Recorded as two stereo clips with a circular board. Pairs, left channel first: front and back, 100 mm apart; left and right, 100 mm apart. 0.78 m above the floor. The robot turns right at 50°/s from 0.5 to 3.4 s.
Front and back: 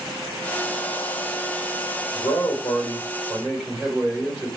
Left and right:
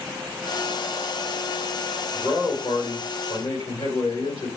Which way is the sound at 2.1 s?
25° left.